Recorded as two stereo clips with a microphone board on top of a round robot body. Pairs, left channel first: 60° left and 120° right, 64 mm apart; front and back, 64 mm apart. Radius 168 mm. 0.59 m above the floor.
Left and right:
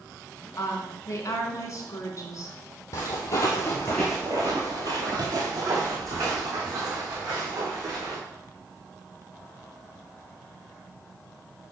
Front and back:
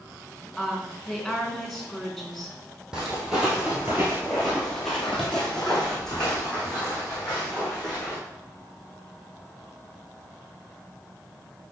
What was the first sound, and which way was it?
A woman speaking, 90° left.